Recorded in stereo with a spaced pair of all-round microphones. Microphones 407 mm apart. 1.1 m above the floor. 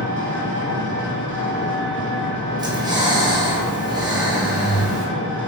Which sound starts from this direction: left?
An engine running, at 0.0 s.